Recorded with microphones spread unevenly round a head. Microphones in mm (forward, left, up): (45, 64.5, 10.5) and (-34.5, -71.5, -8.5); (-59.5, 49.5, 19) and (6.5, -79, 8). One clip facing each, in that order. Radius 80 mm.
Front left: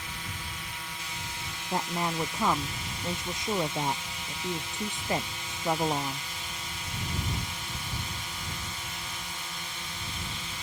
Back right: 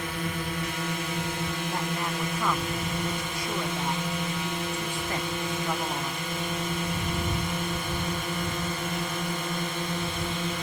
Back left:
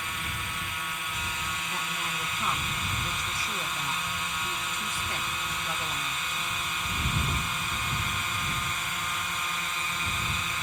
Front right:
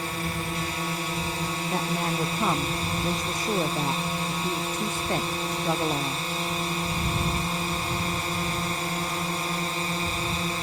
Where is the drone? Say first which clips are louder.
Back right 11 dB, front right 7 dB; 110° right.